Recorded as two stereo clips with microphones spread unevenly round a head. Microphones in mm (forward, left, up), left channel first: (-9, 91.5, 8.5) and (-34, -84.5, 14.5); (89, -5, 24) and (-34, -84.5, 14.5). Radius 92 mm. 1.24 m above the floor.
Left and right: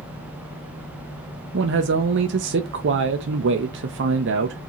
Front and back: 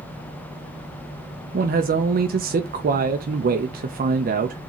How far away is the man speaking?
About 0.7 m.